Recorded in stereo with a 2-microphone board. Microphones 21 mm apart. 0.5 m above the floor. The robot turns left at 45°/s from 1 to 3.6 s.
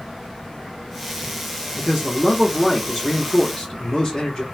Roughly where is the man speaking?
Behind.